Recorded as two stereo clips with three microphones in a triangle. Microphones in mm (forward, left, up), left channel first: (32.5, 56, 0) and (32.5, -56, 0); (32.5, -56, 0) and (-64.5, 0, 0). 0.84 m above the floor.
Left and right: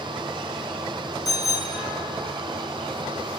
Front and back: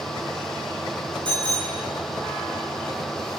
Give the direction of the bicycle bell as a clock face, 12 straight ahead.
4 o'clock.